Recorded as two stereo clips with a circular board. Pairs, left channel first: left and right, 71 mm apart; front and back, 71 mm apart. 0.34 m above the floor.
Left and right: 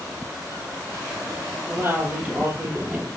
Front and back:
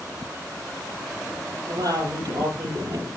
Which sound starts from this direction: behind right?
A woman speaking, at 1.7 s.